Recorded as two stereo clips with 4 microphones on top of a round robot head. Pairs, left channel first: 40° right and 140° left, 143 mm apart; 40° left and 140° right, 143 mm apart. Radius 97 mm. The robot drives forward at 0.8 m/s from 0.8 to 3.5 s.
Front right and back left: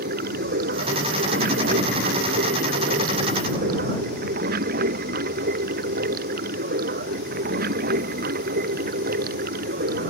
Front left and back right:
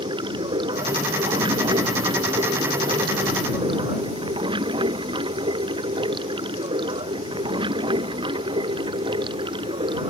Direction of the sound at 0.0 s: 160° left.